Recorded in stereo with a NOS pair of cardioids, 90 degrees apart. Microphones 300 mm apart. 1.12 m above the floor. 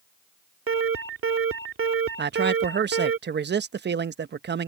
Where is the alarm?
45° right.